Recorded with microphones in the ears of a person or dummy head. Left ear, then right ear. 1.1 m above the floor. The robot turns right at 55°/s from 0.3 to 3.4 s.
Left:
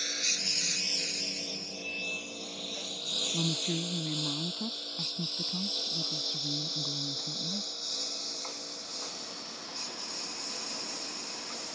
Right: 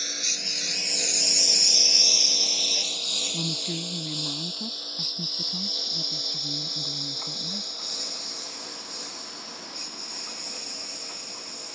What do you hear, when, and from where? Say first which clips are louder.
0.0 s a lawn mower: right 3 dB; centre (ahead or behind); by 11.8 s 15° right (ahead or behind)
3.3 s a woman speaking: right 3 dB; 5° right (ahead or behind); by 7.7 s centre (ahead or behind)